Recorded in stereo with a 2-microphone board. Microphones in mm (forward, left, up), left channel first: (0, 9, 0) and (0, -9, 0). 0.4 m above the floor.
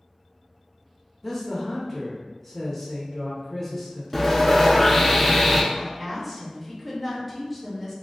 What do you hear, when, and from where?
1.2 s a man speaking: 10° left (ahead or behind), 0.8 m
4.1 s sawing: 15° left (ahead or behind), 0.7 m
5.7 s a woman speaking: centre (ahead or behind), 0.9 m